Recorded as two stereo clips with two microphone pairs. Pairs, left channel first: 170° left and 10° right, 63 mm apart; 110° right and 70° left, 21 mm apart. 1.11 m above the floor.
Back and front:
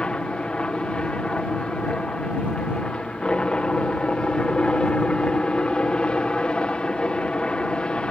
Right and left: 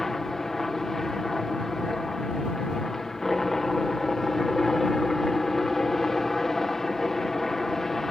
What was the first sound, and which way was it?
A helicopter, 155° right.